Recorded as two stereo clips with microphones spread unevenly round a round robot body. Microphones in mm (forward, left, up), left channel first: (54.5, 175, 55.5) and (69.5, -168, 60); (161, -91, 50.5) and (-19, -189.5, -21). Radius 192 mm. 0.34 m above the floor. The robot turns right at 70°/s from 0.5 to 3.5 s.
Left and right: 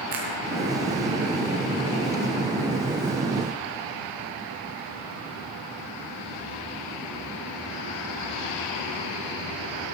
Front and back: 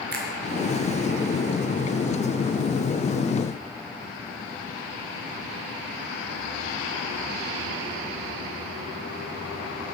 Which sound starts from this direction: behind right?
A finger snap, at 0.1 s.